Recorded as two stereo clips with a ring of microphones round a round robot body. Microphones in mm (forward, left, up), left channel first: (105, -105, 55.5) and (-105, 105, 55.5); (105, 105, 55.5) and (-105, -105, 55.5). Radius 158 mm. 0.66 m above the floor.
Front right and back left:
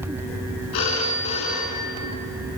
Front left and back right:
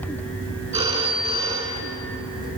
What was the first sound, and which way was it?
A phone ringing, 60° right.